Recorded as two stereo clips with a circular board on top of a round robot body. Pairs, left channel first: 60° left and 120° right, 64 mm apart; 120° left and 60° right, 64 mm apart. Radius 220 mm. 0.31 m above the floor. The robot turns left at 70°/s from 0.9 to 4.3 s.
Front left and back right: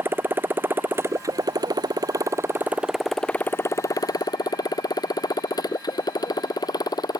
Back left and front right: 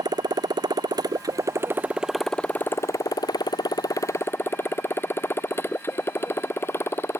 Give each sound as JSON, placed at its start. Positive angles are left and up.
{"t": 0.0, "sound": "a motorcycle", "azimuth_deg": -65}